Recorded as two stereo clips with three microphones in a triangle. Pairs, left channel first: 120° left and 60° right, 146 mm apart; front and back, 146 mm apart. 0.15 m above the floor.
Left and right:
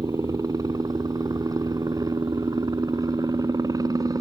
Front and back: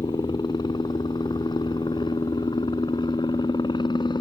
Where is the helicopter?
20° right.